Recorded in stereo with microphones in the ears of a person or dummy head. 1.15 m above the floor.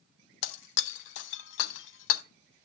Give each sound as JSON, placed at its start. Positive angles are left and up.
{"t": 0.4, "sound": "breaking glass", "side_deg": 65, "distance_m": 0.5}